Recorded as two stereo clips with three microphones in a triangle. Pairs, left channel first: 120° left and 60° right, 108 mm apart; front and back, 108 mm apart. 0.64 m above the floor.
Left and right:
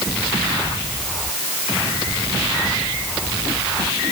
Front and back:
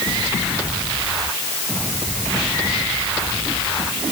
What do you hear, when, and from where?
Only background noise.